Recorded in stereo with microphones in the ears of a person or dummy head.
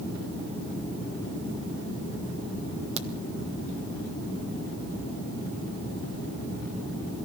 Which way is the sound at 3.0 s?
35° right (ahead or behind).